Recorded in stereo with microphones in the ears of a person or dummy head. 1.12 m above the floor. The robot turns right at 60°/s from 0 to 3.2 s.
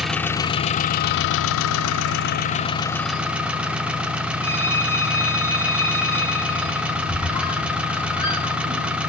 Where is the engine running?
5° right, 1.7 m; by 9.1 s 170° right, 1.7 m.